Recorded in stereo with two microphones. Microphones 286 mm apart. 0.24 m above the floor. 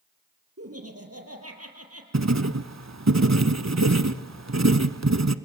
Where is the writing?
70° right (ahead or behind), 0.9 m.